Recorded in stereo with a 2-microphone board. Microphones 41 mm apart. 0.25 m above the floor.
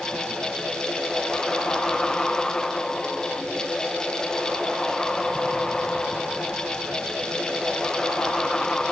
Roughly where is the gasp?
I don't hear a gasp.